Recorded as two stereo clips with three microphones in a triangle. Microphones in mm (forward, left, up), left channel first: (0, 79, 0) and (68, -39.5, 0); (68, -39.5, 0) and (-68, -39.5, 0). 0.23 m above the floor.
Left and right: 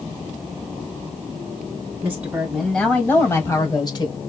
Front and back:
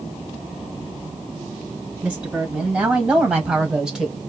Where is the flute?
No flute in this recording.